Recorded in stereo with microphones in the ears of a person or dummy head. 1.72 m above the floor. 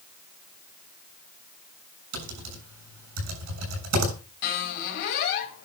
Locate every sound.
2.1 s typing on a keyboard: 80° right, 7.5 m
4.4 s a squeak: 55° left (ahead or behind), 2.5 m